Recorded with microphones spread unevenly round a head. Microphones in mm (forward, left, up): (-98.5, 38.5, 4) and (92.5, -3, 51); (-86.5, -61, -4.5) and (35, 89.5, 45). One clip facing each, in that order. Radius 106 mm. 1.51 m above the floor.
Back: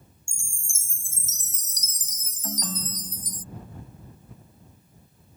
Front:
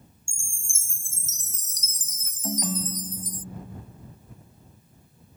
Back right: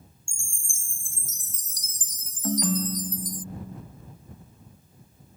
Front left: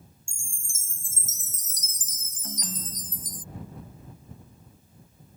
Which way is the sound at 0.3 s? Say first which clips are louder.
Even, even; 110° left.